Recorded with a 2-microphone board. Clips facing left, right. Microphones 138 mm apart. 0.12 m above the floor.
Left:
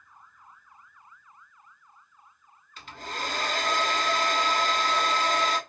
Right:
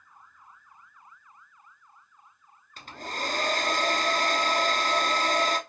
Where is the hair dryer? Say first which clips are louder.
Right 1 dB; 50° right (ahead or behind), 0.7 m.